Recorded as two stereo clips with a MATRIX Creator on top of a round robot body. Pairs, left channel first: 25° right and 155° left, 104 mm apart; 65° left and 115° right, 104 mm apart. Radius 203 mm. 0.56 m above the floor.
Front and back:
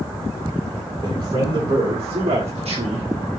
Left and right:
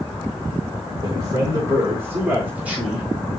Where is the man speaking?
160° right, 3.5 m; by 3.1 s 165° left, 3 m.